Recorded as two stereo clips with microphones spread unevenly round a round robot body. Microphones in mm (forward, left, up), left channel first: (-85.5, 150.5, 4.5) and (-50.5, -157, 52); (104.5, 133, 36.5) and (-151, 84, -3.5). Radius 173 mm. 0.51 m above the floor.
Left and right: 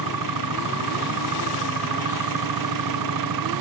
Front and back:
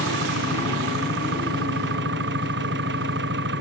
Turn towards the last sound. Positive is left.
turn(degrees=-105)